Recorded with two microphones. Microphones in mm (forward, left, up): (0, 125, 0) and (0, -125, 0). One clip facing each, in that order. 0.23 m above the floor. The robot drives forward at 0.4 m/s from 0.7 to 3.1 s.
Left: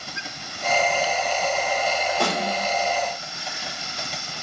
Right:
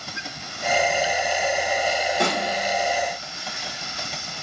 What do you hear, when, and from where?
2.2 s a snare drum: 25° right (ahead or behind), 1.5 m; by 2.7 s 20° right (ahead or behind), 1.7 m